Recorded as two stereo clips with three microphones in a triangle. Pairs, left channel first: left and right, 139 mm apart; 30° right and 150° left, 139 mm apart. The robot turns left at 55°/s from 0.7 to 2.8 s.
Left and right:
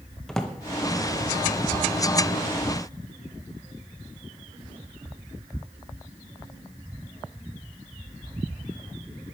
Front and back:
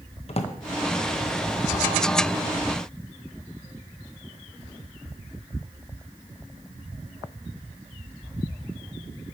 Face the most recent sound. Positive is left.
turn(degrees=-110)